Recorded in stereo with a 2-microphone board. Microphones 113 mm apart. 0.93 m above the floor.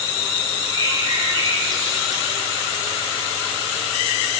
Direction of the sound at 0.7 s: 35° right (ahead or behind).